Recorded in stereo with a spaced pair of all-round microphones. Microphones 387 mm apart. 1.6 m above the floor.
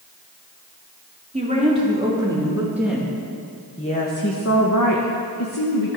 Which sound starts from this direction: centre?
A woman speaking, at 1.3 s.